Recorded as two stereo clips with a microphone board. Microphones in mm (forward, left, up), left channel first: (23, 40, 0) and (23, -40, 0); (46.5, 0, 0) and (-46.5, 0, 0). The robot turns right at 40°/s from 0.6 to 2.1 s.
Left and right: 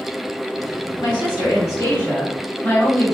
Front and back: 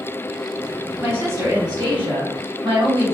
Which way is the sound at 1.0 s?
110° left.